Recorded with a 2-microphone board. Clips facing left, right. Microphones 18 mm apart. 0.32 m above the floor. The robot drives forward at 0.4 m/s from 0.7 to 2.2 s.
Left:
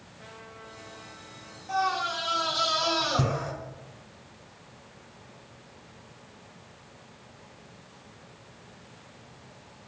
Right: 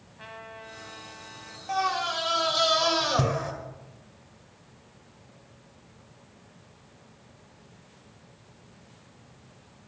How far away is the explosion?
No explosion in this recording.